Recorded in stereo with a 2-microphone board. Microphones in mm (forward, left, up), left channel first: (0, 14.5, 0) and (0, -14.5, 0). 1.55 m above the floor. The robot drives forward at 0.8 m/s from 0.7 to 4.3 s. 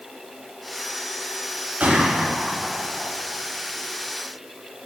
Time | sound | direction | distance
1.8 | a gunshot | 70° right (ahead or behind) | 4 m